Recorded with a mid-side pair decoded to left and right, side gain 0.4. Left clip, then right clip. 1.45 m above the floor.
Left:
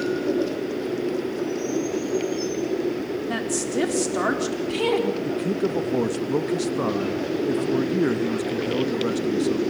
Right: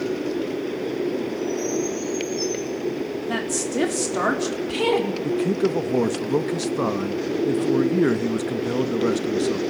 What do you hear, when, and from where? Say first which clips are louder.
3.3 s a woman speaking: right 1 dB; 15° right, 4.5 m
5.2 s a man speaking: right 3 dB; 25° right, 2 m